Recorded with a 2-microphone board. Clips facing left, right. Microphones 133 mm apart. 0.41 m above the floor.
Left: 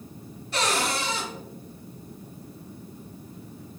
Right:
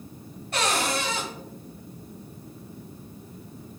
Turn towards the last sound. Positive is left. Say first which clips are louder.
# even
turn(degrees=-50)  # may be behind; listen again after turning